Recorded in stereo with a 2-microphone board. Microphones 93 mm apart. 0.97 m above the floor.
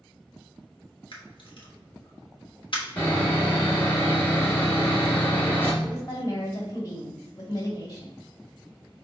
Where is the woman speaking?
45° left (ahead or behind), 1.9 m.